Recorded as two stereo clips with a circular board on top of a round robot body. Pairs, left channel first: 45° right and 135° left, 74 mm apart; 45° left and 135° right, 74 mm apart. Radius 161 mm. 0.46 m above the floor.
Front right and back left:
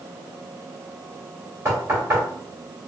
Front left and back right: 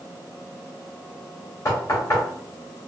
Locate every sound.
1.6 s knocking: 90° left, 2 m